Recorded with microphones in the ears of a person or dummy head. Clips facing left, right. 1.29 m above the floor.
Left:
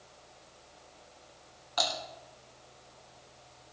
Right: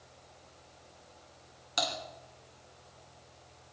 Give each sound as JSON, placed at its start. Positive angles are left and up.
{"t": 0.0, "sound": "a fan", "side_deg": -25, "distance_m": 6.5}
{"t": 1.8, "sound": "typing on a keyboard", "side_deg": -30, "distance_m": 2.0}